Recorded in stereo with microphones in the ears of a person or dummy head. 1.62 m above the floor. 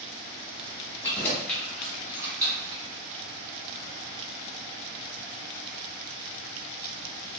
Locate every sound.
1.0 s keys jangling: 20° left (ahead or behind), 1.4 m; by 2.8 s 30° right (ahead or behind), 1.3 m